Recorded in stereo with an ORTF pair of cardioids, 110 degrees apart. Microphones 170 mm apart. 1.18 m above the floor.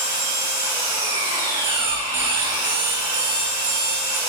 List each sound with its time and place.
0.0 s an engine running: 25° right, 1.7 m
1.6 s an alarm clock: 45° right, 1.1 m